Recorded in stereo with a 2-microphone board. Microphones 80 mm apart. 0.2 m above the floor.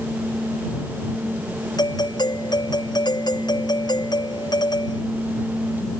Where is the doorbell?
60° left (ahead or behind).